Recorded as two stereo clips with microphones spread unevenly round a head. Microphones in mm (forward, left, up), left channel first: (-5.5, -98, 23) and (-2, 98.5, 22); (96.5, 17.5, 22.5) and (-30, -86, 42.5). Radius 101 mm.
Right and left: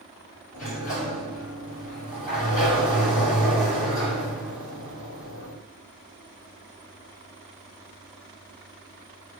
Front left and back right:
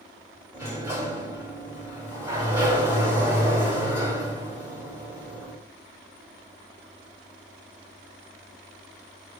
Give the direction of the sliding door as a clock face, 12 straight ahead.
2 o'clock.